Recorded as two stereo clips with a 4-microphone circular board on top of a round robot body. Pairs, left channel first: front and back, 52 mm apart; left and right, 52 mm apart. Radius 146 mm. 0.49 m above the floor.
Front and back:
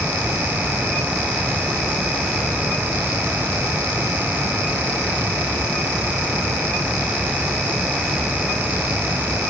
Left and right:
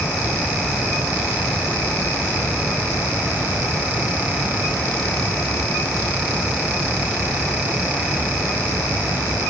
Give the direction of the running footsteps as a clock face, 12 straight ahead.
No running footsteps in this recording.